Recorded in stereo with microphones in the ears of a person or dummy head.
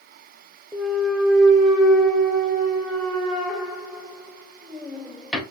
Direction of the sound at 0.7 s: Centre (ahead or behind).